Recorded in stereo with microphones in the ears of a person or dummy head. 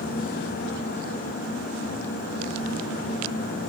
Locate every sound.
Only background noise.